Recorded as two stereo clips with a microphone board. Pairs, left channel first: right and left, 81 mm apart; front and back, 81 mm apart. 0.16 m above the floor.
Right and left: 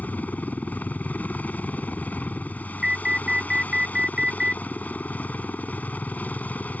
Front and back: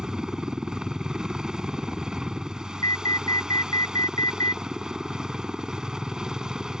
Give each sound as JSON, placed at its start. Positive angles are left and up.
{"t": 0.0, "sound": "a helicopter", "azimuth_deg": -110}
{"t": 2.8, "sound": "an alarm", "azimuth_deg": 15}